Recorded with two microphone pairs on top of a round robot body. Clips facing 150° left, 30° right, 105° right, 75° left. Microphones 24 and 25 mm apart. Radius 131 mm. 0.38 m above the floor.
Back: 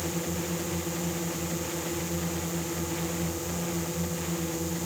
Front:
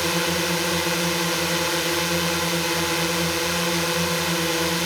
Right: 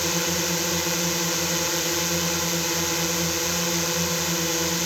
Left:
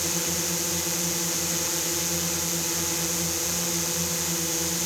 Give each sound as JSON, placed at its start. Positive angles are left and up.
{"t": 0.0, "sound": "a drone", "azimuth_deg": -40}